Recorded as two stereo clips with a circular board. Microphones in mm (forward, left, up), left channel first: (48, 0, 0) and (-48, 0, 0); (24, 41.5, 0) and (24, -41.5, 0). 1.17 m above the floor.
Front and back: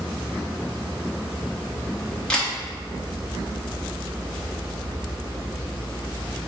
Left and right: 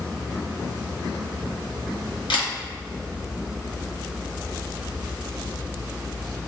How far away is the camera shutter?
About 1.0 m.